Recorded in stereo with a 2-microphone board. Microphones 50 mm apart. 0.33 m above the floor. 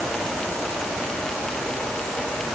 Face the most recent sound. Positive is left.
No sound to turn to.